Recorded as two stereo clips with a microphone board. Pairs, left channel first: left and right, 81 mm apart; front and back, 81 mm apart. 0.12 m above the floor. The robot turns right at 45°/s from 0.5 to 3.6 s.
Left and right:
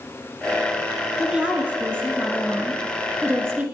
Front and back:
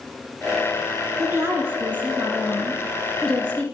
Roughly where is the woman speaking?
Behind.